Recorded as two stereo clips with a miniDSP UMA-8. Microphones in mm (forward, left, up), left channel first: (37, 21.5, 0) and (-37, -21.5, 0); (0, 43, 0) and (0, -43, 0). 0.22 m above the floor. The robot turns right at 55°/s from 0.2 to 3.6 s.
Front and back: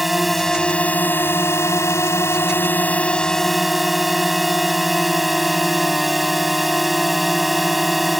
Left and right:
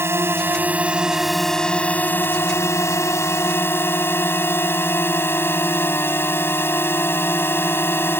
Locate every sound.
0.0 s a drone: 65° right; by 8.2 s 125° left